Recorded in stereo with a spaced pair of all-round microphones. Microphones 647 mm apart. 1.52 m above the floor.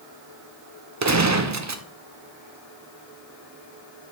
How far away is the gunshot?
About 0.5 m.